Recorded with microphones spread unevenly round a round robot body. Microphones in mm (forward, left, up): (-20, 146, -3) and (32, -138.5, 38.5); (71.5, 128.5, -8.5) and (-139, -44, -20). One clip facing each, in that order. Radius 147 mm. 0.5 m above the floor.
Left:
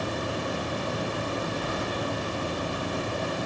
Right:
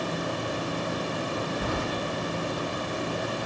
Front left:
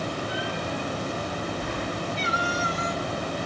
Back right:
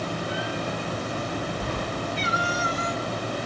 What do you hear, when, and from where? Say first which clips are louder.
1.6 s keys jangling: right 2 dB, back right 1 dB; 95° right, 1.4 m